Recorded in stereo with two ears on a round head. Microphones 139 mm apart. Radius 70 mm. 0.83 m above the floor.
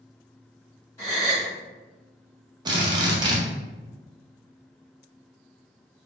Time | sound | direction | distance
1.0 | a gasp | 20° left (ahead or behind) | 1.6 m
2.6 | a drill | 25° right (ahead or behind) | 0.6 m